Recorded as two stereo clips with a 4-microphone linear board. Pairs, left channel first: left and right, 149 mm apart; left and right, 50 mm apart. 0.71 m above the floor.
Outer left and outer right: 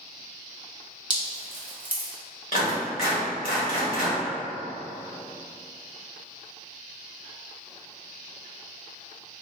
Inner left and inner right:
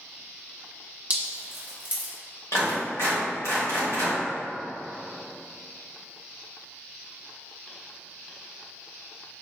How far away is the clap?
About 1.8 m.